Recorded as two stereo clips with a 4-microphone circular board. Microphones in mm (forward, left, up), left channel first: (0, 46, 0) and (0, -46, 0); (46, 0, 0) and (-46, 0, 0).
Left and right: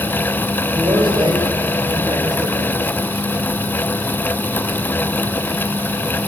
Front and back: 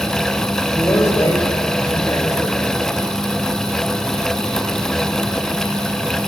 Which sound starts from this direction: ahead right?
A man speaking, at 0.7 s.